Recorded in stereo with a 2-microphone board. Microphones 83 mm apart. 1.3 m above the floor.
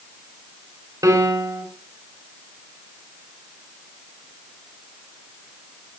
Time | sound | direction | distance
1.0 | a piano | 45° right (ahead or behind) | 4 m